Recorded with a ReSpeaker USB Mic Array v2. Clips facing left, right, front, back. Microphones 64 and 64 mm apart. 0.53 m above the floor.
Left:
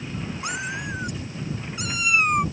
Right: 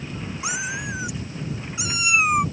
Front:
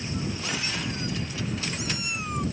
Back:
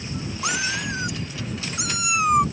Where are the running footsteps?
I don't hear running footsteps.